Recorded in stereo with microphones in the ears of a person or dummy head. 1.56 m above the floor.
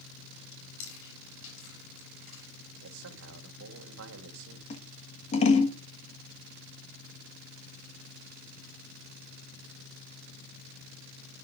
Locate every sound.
0.5 s chewing: 80° left, 8.5 m
2.8 s a man speaking: 75° right (ahead or behind), 2 m
4.7 s scissors: 30° left (ahead or behind), 1.3 m